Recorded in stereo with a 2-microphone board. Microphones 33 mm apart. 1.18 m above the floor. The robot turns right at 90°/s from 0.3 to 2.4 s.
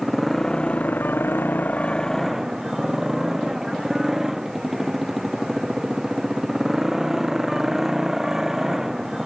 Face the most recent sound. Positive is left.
turn(degrees=-170)